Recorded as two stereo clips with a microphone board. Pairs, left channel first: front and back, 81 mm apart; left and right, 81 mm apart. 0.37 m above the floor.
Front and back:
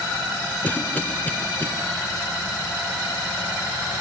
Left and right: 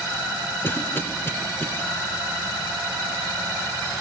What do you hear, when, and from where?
0.6 s a cough: 50° left, 1.4 m